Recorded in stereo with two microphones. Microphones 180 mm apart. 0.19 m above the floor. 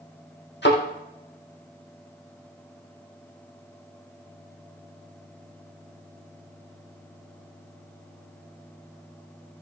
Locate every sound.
0.6 s a thud: 65° left (ahead or behind), 4 m